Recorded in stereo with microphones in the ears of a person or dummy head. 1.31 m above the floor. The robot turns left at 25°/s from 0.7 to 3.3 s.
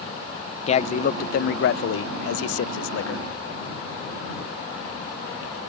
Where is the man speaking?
145° left; by 3.3 s 80° left.